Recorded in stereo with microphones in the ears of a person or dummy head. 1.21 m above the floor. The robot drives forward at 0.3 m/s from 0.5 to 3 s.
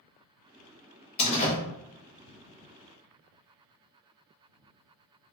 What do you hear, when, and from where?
1.2 s a door slam: 35° left (ahead or behind), 0.8 m; by 1.6 s 40° left (ahead or behind), 0.7 m